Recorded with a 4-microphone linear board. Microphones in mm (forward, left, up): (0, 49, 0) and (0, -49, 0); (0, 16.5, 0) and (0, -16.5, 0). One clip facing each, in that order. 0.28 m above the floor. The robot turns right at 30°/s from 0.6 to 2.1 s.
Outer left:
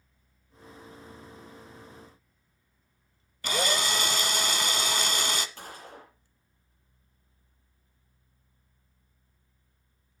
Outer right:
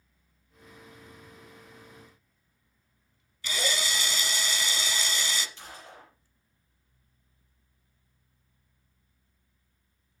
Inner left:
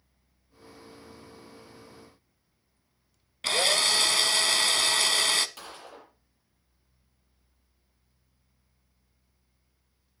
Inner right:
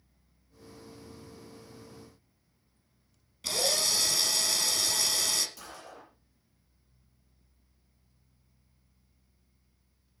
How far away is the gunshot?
About 9 m.